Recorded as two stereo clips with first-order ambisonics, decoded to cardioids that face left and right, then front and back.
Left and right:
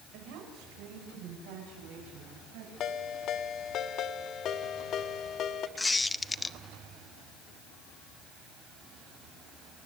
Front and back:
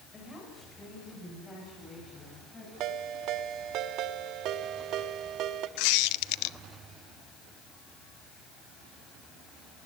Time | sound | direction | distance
0.1 | a woman speaking | 75° right | 6 m
2.8 | a ringtone | 140° left | 1.1 m
5.8 | a squeak | 10° left | 0.6 m